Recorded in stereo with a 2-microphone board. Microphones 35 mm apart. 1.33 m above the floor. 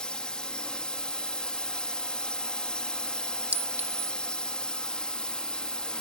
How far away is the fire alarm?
No fire alarm in this recording.